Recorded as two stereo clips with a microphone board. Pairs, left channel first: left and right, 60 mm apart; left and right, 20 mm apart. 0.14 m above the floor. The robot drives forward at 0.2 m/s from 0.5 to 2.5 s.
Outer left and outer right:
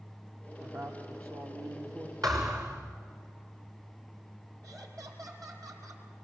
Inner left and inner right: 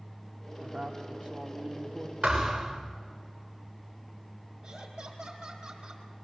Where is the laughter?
60° right (ahead or behind), 5 m.